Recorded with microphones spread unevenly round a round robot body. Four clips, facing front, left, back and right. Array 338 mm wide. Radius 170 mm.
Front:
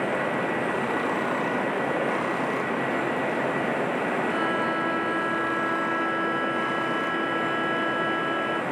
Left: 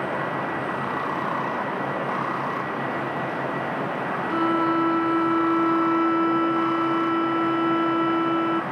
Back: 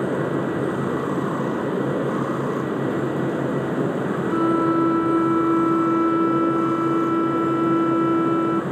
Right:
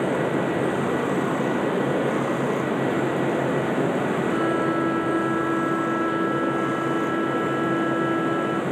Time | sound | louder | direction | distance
0.0 | running water | right 4 dB, back 3 dB | 160° right | ?
4.3 | a violin | left 4 dB, back 7 dB | 160° left | ?